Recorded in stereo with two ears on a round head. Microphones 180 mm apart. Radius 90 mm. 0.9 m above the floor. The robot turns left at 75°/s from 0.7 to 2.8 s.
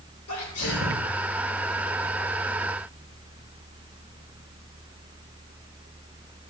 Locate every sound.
0.3 s a sneeze: 85° left, 3.5 m; by 1.1 s 65° left (ahead or behind), 3.5 m